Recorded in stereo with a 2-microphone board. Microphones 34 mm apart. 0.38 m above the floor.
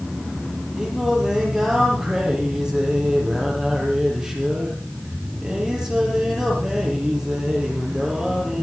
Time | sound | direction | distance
0.8 | singing | 20° right (ahead or behind) | 7 m